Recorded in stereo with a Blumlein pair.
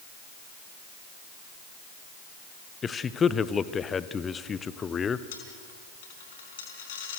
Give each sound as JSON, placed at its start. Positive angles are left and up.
{"t": 2.8, "sound": "a man speaking", "azimuth_deg": 20, "distance_m": 1.0}
{"t": 5.3, "sound": "a dropped coin", "azimuth_deg": 55, "distance_m": 4.0}